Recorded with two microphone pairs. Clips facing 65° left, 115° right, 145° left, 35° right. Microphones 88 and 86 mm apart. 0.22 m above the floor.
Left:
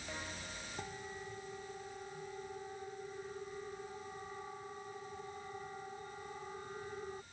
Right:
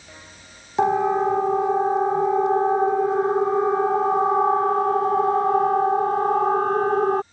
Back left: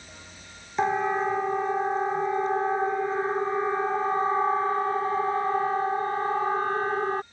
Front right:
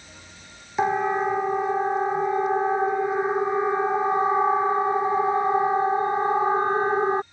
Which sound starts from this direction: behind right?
A siren, at 0.8 s.